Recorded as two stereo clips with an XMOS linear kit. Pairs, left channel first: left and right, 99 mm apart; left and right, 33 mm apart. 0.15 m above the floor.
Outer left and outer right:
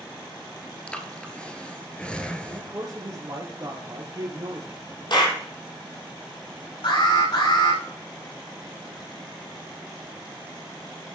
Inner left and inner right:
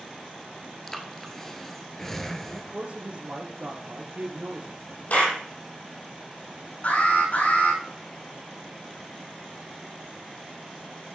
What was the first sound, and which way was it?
Breathing, 10° left (ahead or behind).